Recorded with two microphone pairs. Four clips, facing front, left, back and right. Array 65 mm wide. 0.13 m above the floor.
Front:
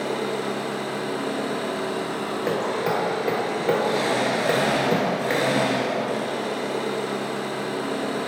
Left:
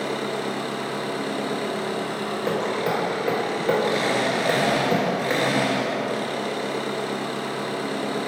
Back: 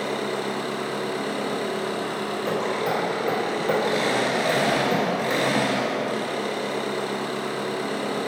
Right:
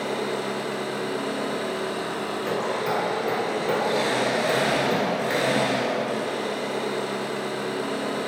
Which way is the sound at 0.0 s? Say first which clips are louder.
Even, front 1 dB; 130° left.